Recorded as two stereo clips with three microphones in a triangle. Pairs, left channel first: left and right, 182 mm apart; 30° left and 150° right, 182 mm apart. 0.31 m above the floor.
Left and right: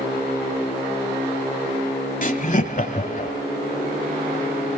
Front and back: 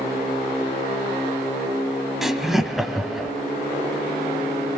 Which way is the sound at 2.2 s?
120° left.